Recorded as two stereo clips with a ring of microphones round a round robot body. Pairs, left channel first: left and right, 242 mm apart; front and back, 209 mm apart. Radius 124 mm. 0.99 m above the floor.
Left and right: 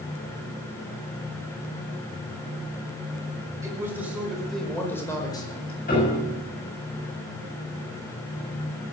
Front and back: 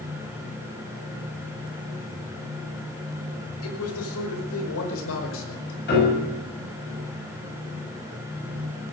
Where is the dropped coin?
No dropped coin in this recording.